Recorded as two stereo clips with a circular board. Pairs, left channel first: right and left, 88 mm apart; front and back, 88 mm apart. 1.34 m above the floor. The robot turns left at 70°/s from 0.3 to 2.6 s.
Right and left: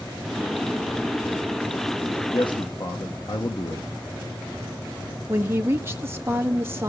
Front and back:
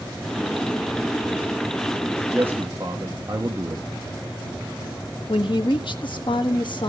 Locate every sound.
2.3 s a man speaking: 105° right, 1.2 m; by 3.8 s 125° right, 1.2 m
5.3 s a woman speaking: 30° left, 1.6 m